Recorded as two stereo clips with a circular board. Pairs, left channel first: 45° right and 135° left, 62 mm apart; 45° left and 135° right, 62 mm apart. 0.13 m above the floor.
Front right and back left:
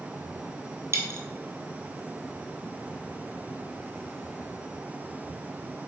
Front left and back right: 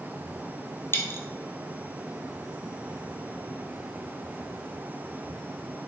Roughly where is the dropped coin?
Left.